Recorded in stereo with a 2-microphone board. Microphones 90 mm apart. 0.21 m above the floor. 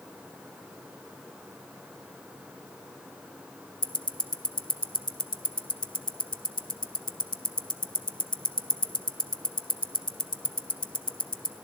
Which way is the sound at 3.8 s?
65° left (ahead or behind).